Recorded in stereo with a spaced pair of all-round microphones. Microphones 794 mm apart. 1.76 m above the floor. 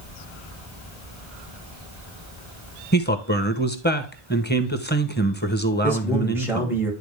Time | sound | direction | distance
2.9 | a man speaking | 15° left (ahead or behind) | 1.0 m
5.8 | a man speaking | 5° right (ahead or behind) | 2.5 m